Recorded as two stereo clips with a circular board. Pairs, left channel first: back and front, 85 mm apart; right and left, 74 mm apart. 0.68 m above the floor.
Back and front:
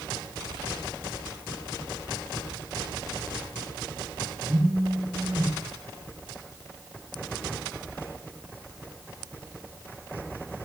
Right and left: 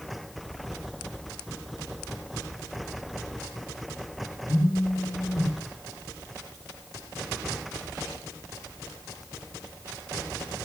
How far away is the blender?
I don't hear a blender.